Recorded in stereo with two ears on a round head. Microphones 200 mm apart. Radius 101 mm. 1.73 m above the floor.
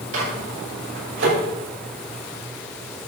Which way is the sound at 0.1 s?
65° right (ahead or behind).